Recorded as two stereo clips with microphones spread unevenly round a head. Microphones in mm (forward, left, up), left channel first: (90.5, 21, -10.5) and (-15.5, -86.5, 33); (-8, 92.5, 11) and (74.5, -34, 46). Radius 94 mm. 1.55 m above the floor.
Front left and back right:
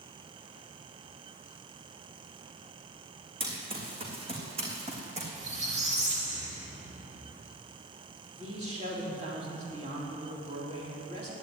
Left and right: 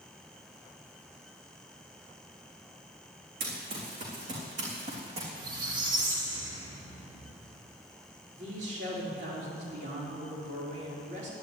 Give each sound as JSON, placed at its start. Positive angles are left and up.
{"t": 3.4, "sound": "running footsteps", "azimuth_deg": -90, "distance_m": 4.0}
{"t": 5.3, "sound": "a squeak", "azimuth_deg": -100, "distance_m": 2.5}
{"t": 8.3, "sound": "a man speaking", "azimuth_deg": -90, "distance_m": 5.0}